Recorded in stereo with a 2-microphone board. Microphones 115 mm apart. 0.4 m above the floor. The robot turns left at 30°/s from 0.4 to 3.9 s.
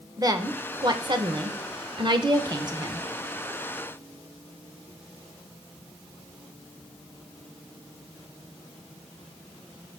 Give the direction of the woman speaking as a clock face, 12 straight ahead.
2 o'clock.